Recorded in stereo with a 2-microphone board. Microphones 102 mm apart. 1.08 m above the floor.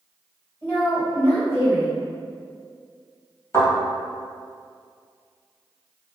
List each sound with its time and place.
0.6 s a woman speaking: 20° left (ahead or behind), 2.0 m
3.5 s a thud: 30° left (ahead or behind), 1.6 m